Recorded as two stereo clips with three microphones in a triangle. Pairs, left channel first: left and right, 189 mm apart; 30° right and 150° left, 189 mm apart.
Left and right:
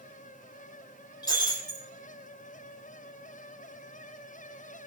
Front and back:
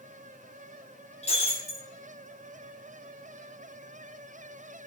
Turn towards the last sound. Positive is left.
turn(degrees=20)